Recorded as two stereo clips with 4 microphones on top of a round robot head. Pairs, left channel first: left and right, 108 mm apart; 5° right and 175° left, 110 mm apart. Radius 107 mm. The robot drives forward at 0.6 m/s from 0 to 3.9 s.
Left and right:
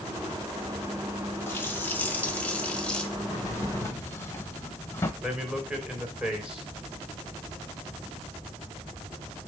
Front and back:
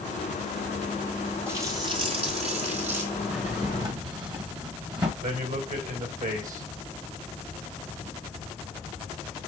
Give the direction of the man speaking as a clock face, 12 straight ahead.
6 o'clock.